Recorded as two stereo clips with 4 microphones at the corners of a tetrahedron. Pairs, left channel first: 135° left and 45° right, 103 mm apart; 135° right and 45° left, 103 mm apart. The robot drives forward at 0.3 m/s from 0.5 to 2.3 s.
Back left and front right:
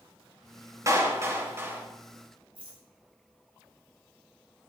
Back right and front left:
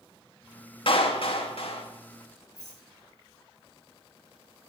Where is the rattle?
15° right, 5 m.